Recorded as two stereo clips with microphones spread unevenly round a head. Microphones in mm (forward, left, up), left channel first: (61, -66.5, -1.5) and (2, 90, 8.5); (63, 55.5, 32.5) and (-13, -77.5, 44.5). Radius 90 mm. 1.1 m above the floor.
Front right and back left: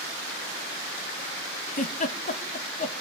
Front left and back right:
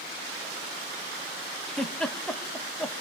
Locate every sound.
1.7 s a giggle: 25° right, 1.6 m